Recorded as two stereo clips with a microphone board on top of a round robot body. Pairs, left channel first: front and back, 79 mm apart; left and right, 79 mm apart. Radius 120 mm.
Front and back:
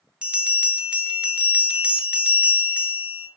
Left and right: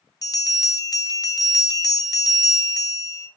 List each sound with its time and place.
0.2 s a bell: 105° left, 0.8 m